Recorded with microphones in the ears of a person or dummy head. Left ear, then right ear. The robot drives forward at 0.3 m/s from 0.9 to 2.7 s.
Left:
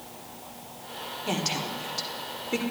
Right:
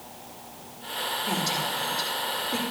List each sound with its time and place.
1.3 s a woman speaking: 80° left, 1.4 m; by 2.6 s 85° left, 1.4 m